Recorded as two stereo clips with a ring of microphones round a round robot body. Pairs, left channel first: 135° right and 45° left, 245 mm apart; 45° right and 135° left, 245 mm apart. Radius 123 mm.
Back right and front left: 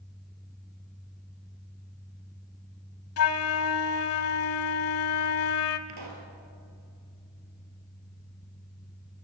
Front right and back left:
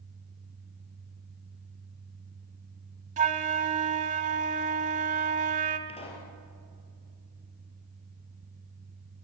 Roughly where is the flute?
Behind.